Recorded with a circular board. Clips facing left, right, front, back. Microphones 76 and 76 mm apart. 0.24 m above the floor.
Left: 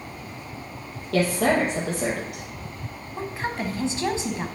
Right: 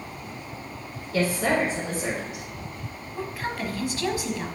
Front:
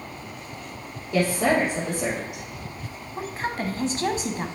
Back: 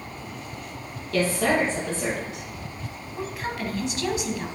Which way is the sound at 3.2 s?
35° left.